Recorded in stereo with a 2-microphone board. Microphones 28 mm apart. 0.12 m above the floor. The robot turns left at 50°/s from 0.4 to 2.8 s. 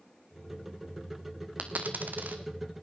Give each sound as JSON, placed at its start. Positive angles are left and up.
{"t": 1.6, "sound": "a dropped coin", "side_deg": -60, "distance_m": 0.9}